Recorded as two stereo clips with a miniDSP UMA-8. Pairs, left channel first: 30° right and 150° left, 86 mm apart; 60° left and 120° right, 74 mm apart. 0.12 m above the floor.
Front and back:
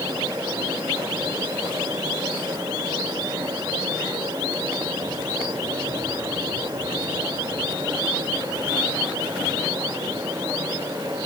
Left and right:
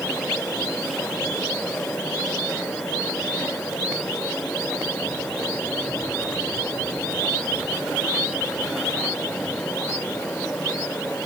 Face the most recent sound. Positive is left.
No sound to turn to.